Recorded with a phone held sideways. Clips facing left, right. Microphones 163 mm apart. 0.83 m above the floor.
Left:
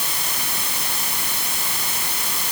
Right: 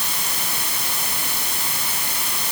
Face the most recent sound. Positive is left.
No sound to turn to.